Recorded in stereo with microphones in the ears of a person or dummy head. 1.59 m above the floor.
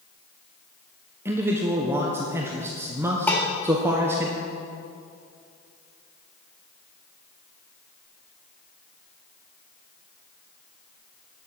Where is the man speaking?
15° right (ahead or behind), 1.1 m.